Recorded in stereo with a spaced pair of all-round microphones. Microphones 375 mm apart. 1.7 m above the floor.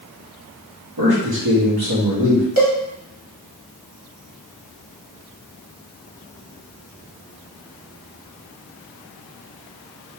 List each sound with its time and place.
1.0 s a man speaking: 70° right (ahead or behind), 1.9 m
2.6 s a cowbell: 40° right (ahead or behind), 1.5 m